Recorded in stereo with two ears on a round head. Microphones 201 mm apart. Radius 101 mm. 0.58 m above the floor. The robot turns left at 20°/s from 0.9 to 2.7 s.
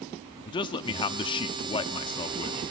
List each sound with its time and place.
0.5 s a man speaking: 20° left (ahead or behind), 0.6 m